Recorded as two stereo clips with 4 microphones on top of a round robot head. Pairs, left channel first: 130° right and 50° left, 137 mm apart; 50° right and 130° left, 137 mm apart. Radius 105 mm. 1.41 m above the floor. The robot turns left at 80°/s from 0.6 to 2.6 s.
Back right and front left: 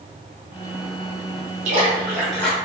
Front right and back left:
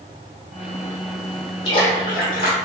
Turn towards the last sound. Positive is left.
turn(degrees=-65)